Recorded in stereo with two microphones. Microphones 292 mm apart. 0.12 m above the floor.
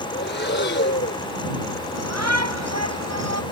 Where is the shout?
60° right (ahead or behind).